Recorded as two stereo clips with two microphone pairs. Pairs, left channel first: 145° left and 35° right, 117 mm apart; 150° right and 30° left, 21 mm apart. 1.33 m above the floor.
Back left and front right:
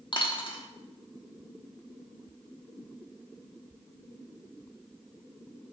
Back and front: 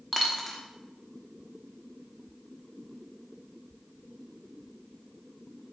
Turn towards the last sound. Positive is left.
turn(degrees=125)